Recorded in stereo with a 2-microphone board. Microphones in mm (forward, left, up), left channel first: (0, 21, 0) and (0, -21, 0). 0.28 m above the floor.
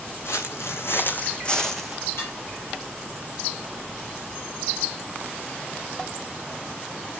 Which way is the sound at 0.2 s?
80° left.